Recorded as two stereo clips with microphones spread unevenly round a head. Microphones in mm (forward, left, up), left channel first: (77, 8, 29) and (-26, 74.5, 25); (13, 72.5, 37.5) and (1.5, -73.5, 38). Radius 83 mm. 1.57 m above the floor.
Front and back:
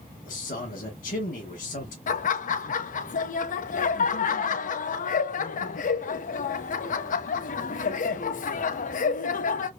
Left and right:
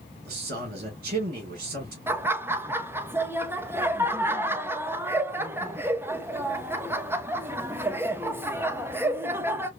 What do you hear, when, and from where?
0.2 s a man speaking: 60° right, 1.9 m
2.1 s laughter: 20° right, 0.6 m